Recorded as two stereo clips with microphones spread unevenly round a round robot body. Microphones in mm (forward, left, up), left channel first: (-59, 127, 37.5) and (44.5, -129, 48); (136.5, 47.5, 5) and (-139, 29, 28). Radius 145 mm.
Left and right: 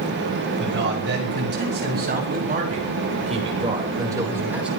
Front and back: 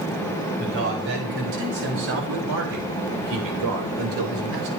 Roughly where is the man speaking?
Behind right.